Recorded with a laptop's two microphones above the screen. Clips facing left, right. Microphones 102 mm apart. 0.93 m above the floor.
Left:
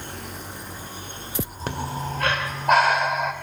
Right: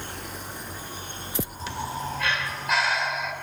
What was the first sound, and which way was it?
Breathing, 50° left (ahead or behind).